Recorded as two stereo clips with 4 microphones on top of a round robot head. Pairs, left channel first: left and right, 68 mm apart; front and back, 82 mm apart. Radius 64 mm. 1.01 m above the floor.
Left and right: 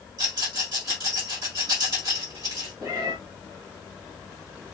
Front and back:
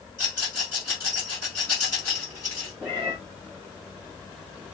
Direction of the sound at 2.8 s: 70° right.